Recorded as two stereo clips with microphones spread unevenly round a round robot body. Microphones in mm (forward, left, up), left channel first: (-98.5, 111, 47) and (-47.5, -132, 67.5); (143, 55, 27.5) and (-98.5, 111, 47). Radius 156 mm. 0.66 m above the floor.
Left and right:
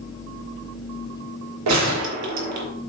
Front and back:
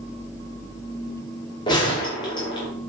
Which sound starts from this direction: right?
A gunshot, at 1.7 s.